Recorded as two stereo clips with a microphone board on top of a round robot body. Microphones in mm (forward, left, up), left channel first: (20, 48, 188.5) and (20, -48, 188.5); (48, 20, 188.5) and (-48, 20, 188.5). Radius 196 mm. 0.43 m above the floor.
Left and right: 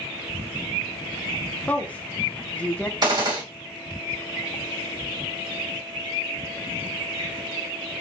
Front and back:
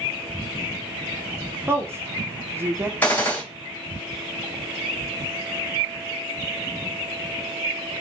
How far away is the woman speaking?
About 0.8 m.